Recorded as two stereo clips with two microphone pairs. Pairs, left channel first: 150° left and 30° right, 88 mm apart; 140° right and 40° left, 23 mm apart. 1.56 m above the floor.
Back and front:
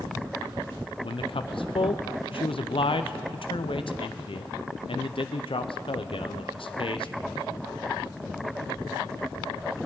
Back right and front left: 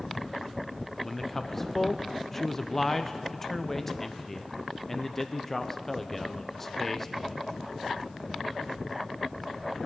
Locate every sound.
1.0 s a man speaking: 140° left, 0.5 m